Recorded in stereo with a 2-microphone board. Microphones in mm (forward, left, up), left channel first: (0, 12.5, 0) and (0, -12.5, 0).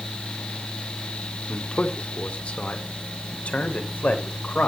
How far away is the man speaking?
About 1.9 m.